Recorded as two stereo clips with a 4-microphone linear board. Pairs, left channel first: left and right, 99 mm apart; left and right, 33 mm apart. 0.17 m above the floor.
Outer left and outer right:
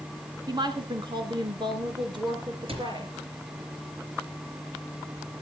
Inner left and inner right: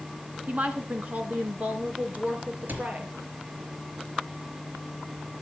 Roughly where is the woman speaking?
Right.